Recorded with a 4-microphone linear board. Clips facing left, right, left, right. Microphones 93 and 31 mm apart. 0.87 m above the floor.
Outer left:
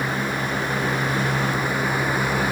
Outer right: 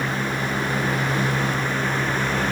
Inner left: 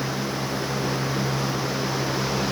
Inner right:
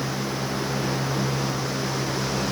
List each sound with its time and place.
Only background noise.